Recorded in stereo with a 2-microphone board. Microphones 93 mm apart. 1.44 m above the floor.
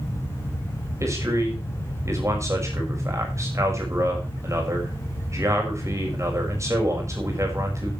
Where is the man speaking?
35° right (ahead or behind), 6 m.